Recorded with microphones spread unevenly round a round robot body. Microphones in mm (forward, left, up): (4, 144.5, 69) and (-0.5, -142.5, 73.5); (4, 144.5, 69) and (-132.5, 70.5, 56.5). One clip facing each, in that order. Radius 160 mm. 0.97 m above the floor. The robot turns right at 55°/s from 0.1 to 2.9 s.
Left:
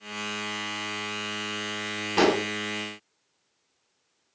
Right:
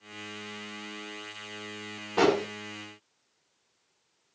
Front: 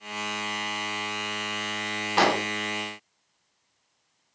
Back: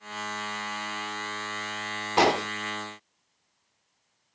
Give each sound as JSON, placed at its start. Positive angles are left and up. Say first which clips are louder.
{"t": 2.2, "sound": "an explosion", "louder": "left 1 dB, back 1 dB", "azimuth_deg": 135, "distance_m": 0.6}